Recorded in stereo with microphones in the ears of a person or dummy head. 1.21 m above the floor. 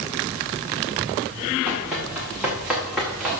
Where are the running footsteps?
10° right (ahead or behind), 6.5 m; by 3.4 s 5° right (ahead or behind), 5.5 m.